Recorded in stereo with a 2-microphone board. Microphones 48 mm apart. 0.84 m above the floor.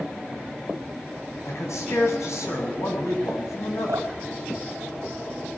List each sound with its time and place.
1.4 s a man speaking: 75° left (ahead or behind), 7 m
3.9 s dripping: 85° right, 2.5 m